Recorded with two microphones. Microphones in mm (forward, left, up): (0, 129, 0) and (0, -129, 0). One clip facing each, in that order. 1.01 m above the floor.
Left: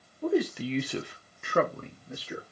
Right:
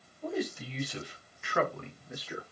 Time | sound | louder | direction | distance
0.2 | a man speaking | left 8 dB | 65° left (ahead or behind) | 0.6 m